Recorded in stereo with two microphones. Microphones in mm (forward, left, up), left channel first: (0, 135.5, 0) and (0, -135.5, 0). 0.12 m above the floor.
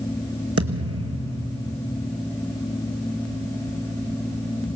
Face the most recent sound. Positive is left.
turn(degrees=-60)  # may be behind; listen again after turning